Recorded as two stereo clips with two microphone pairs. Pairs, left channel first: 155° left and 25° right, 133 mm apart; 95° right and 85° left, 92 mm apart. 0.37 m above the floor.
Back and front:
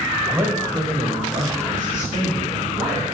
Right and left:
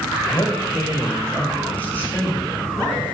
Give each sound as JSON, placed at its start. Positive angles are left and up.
{"t": 0.3, "sound": "a man speaking", "azimuth_deg": -90, "distance_m": 1.6}